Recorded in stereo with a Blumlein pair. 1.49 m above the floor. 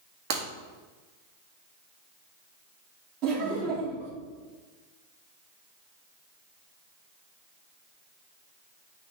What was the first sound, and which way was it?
Breaking glass, 45° right.